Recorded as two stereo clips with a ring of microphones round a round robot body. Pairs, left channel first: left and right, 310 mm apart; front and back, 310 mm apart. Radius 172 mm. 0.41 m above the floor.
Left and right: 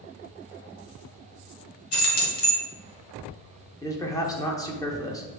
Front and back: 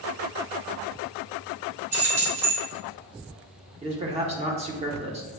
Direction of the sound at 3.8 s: 150° left.